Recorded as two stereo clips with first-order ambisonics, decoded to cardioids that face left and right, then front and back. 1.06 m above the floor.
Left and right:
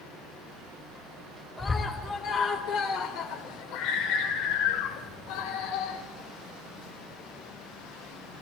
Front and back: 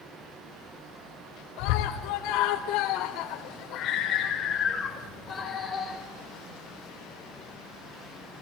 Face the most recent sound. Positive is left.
turn(degrees=85)